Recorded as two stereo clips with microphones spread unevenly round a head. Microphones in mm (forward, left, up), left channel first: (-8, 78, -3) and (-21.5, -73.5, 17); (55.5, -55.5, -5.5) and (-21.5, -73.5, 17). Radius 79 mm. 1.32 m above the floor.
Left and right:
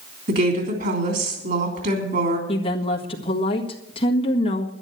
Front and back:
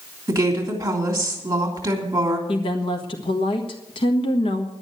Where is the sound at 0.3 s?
120° right, 3 m.